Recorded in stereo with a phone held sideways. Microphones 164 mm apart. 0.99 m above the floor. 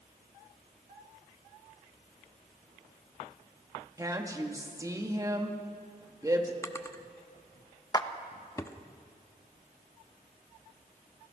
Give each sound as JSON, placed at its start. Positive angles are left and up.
{"t": 4.0, "sound": "a woman speaking", "side_deg": -20, "distance_m": 2.0}
{"t": 6.6, "sound": "a drawer", "side_deg": 20, "distance_m": 0.9}
{"t": 7.9, "sound": "a clap", "side_deg": 25, "distance_m": 0.9}